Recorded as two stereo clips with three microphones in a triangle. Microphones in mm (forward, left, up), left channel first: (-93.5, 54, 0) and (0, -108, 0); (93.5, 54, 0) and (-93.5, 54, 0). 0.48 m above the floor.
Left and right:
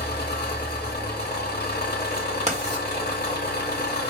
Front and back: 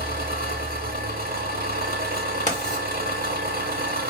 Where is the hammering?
No hammering in this recording.